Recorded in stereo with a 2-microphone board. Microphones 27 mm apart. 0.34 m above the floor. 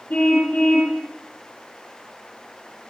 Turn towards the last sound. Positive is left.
turn(degrees=70)  # may be behind; listen again after turning